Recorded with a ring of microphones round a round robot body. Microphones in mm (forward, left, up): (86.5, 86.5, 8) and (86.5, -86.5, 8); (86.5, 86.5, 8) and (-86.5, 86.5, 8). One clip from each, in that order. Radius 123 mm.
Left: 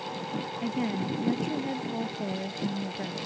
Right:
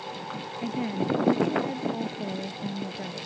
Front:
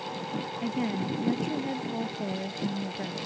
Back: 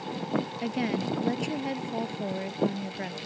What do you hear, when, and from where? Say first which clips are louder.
0.6 s a woman speaking: right 4 dB, back 1 dB; 175° left